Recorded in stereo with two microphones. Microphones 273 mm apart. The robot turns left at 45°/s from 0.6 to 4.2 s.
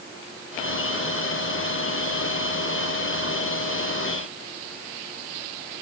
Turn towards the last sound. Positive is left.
No sound to turn to.